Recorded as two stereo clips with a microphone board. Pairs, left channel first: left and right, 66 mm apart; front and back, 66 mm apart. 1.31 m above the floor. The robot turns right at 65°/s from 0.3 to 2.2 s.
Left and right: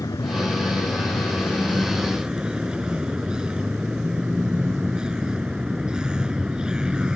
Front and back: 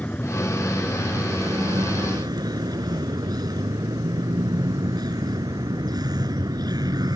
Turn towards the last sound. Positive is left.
turn(degrees=-170)